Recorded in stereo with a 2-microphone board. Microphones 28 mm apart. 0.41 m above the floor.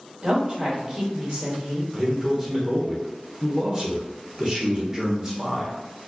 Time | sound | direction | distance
0.2 | a woman speaking | 35° right (ahead or behind) | 1.5 m
1.9 | a man speaking | 20° right (ahead or behind) | 1.0 m